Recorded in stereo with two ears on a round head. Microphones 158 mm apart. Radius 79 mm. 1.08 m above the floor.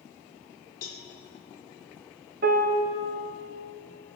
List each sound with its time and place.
0.8 s a cowbell: 55° left (ahead or behind), 1.2 m
2.4 s a piano: 55° right (ahead or behind), 0.7 m